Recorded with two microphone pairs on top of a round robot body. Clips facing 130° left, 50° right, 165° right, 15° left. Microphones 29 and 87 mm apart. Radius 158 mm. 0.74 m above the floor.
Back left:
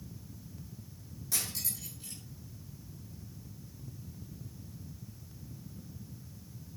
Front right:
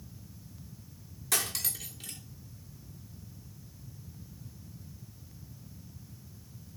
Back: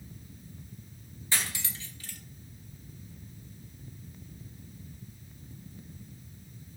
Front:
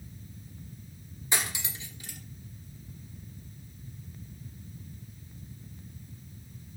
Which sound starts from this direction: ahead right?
Cutlery clinking, at 1.3 s.